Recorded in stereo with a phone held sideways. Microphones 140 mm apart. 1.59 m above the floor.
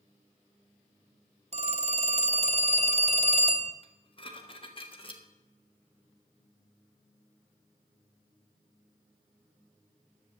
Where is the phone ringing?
50° right (ahead or behind), 0.9 m.